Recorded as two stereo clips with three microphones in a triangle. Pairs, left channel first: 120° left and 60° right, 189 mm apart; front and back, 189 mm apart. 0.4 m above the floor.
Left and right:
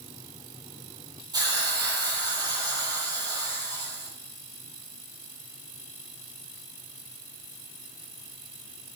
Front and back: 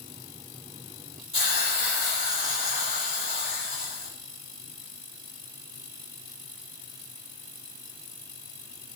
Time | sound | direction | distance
1.3 | a hiss | 10° left | 6.5 m